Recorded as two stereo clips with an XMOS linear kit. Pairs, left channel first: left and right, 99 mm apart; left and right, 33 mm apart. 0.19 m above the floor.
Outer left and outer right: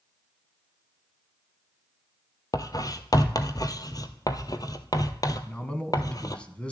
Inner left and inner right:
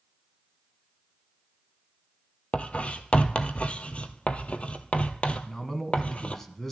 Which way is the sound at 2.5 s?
40° left (ahead or behind).